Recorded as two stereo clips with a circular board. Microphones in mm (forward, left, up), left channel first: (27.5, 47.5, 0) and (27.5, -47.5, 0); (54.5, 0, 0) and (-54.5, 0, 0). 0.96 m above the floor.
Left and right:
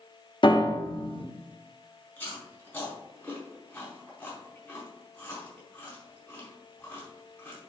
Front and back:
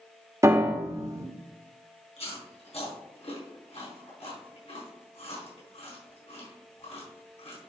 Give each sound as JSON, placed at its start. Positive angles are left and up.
{"t": 0.4, "sound": "a piano", "azimuth_deg": 120, "distance_m": 1.2}
{"t": 2.2, "sound": "chewing", "azimuth_deg": 15, "distance_m": 4.0}